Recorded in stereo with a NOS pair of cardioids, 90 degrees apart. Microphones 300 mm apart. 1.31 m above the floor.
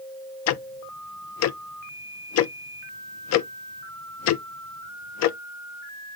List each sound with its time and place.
0.5 s ticking: 60° left, 0.5 m